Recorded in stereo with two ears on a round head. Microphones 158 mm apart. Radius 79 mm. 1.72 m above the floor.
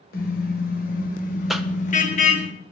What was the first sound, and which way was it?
A car horn, 60° left (ahead or behind).